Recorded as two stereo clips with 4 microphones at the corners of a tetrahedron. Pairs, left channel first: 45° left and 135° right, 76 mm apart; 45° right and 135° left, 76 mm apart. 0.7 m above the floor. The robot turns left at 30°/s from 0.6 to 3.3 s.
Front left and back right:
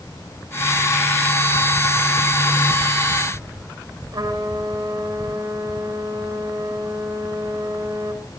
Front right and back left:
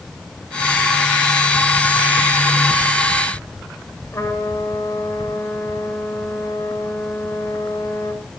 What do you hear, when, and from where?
4.1 s a trumpet: 105° right, 9 m